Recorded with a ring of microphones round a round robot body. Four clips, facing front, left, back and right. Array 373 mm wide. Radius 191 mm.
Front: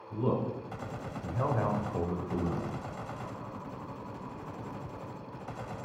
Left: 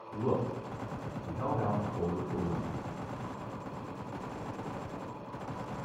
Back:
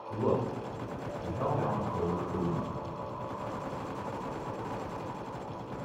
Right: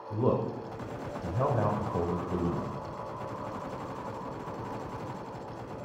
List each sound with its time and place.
0.1 s a man speaking: 100° right, 3 m; by 2.7 s 60° right, 3 m